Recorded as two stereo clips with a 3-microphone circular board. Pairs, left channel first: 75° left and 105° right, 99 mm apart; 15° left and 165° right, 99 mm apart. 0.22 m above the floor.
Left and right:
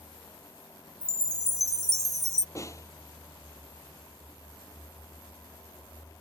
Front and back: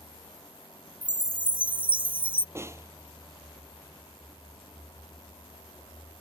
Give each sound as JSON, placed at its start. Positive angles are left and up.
{"t": 1.0, "sound": "a chime", "azimuth_deg": 120}
{"t": 2.5, "sound": "a snare drum", "azimuth_deg": 130}